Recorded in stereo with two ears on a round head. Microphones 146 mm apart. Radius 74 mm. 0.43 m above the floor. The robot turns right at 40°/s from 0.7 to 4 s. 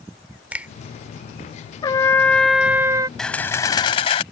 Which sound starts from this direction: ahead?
A camera shutter, at 3.2 s.